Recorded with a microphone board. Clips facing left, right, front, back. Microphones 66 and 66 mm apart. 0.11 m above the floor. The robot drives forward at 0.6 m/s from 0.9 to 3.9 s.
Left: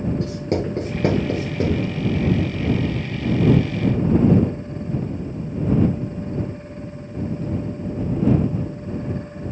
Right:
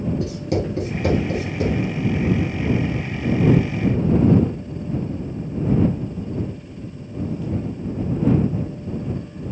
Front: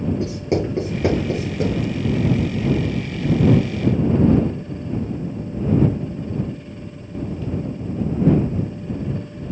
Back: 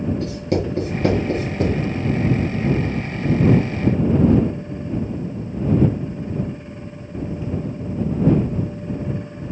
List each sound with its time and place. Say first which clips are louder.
0.2 s writing: even, front 1 dB; 55° left, 1.5 m; by 1.8 s 85° left, 1.4 m